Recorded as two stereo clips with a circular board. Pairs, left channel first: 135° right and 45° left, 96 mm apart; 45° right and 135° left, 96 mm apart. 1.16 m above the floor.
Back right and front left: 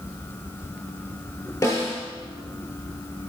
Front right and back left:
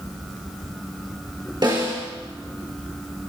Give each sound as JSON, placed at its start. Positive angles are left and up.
{"t": 1.6, "sound": "a snare drum", "azimuth_deg": 165, "distance_m": 3.5}